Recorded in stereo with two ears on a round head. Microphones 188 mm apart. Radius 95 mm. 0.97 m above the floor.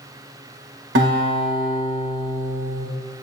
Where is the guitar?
60° right (ahead or behind), 1.6 m.